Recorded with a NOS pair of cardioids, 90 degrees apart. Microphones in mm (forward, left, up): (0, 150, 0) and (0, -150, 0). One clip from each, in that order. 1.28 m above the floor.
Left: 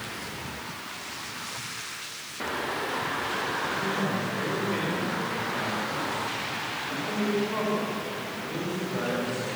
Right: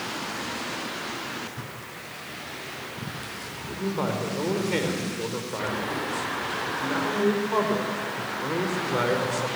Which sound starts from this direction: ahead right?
A man speaking, at 3.7 s.